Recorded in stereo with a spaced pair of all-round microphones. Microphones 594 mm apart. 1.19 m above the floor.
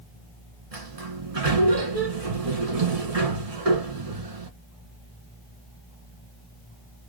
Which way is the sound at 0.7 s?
70° right (ahead or behind).